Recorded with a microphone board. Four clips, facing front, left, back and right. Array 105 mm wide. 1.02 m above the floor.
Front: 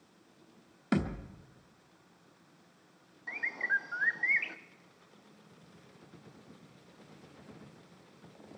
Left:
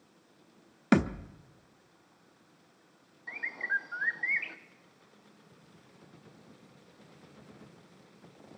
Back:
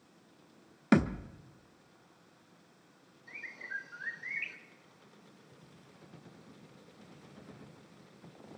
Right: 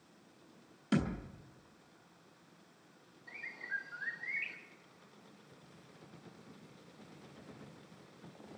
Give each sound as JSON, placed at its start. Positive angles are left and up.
{"t": 0.9, "sound": "a thud", "azimuth_deg": 115, "distance_m": 0.8}
{"t": 3.3, "sound": "a bird", "azimuth_deg": 35, "distance_m": 0.5}